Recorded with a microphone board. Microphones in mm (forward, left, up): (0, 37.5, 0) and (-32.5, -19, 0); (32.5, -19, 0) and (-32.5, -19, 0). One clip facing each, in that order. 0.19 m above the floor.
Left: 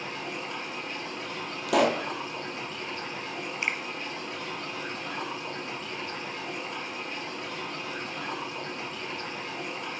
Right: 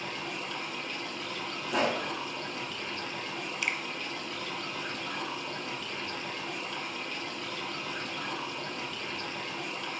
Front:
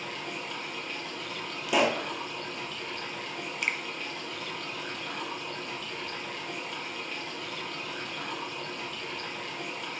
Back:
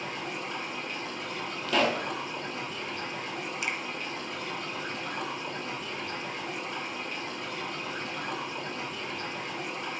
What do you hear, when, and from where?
0.0 s running water: 120° left, 5 m
1.7 s a pop: 75° left, 1.2 m
3.6 s a finger snap: 15° left, 1.5 m